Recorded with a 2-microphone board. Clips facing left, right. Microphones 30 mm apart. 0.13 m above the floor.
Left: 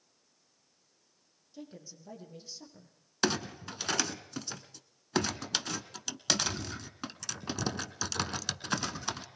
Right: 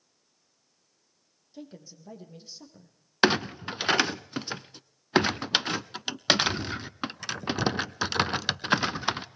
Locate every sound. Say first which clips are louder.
1.5 s a woman speaking: right 3 dB; 15° right (ahead or behind), 5 m; by 3.0 s 10° right (ahead or behind), 5 m
3.2 s a clunk: right 8 dB; 35° right (ahead or behind), 0.6 m